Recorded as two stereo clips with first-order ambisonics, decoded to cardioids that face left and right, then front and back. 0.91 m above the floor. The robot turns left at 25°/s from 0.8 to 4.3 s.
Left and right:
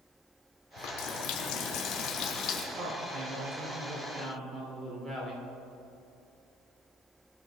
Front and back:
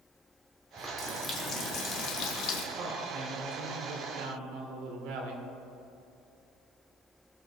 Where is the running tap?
80° left, 1.7 m; by 2.6 s 35° left, 1.7 m.